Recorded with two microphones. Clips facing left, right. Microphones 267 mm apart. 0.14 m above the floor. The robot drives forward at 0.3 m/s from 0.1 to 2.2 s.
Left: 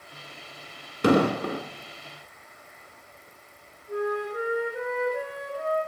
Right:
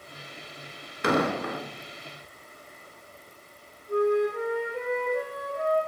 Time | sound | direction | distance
1.0 | an explosion | 40° left (ahead or behind) | 0.6 m
3.9 | a flute | 5° left (ahead or behind) | 1.4 m